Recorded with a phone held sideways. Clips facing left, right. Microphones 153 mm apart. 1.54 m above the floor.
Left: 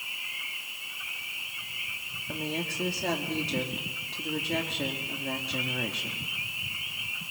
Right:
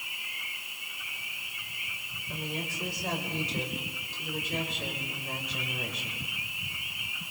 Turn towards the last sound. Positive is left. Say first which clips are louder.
# left 4 dB
turn(degrees=75)  # may be behind; listen again after turning